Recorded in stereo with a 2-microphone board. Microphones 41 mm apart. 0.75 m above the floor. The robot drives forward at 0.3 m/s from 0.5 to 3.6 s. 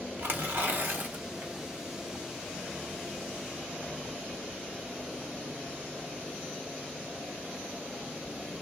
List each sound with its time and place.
0.2 s tearing paper: 60° right (ahead or behind), 0.9 m; by 1.5 s 45° right (ahead or behind), 1.1 m